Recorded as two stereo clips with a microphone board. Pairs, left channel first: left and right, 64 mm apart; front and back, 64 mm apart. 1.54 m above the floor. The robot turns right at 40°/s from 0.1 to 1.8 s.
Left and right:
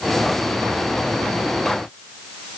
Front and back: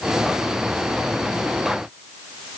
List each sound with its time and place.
Only background noise.